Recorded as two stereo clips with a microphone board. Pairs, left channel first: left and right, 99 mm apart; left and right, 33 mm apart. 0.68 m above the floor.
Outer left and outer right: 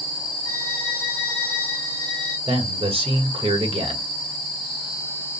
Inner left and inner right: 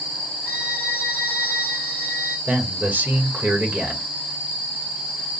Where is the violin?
80° right, 2.5 m.